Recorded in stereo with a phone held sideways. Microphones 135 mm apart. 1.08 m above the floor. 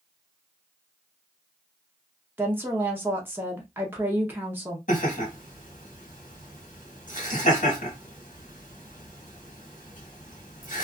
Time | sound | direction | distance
2.4 | a woman speaking | 15° right (ahead or behind) | 0.7 m
4.9 | laughter | 80° left | 1.3 m